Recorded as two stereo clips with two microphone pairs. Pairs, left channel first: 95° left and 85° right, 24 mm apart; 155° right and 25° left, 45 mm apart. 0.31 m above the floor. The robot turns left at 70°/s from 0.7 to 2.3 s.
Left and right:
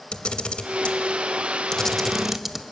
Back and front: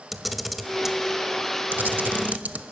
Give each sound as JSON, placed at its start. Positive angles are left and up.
{"t": 0.1, "sound": "a camera shutter", "azimuth_deg": 110, "distance_m": 0.5}